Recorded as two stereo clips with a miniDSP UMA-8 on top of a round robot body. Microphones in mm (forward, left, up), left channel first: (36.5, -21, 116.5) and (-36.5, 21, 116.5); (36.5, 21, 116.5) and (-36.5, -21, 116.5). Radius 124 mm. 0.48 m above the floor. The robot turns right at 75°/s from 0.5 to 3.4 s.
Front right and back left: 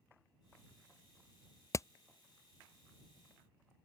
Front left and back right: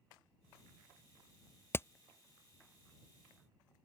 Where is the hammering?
15° right; by 1.9 s 5° right.